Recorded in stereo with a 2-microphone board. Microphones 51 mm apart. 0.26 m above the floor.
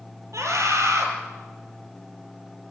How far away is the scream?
About 6 m.